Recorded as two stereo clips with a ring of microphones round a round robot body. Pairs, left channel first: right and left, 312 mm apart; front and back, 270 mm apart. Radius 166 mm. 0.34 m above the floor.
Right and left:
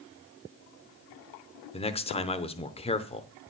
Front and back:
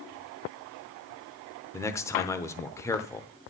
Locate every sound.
1.7 s a man speaking: 60° right, 0.8 m